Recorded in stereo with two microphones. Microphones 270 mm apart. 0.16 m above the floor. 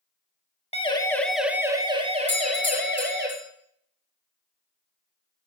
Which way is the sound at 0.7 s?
20° left (ahead or behind).